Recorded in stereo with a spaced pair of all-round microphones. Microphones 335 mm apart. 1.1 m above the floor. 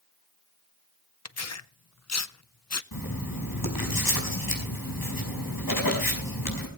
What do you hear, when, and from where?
1.2 s tearing paper: 50° left (ahead or behind), 0.6 m
2.9 s writing: 85° left, 4.5 m